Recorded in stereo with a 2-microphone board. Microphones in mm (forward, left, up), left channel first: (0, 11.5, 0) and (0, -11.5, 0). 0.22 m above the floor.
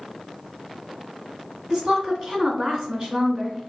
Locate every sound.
1.7 s a woman speaking: 30° right (ahead or behind), 1.9 m